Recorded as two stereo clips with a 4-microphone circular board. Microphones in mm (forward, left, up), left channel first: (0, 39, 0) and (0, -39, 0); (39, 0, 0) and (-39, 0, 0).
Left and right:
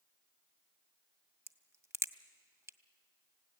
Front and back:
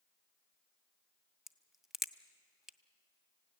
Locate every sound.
1.5 s a crack: 95° right, 0.7 m